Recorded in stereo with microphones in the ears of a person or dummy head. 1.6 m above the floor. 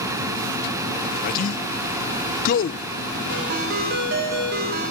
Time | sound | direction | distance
1.2 | a man speaking | 50° left (ahead or behind) | 0.8 m
3.3 | a ringtone | 55° right (ahead or behind) | 3.5 m